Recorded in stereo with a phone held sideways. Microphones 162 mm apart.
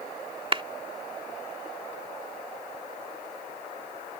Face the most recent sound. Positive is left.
turn(degrees=-35)  # may be behind; listen again after turning